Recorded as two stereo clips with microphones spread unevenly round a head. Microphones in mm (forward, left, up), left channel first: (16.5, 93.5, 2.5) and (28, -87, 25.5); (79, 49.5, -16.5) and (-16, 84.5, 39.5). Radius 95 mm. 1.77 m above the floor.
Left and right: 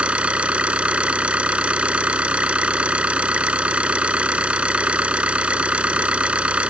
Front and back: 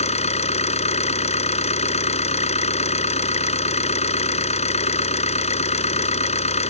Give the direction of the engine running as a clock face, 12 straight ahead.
12 o'clock.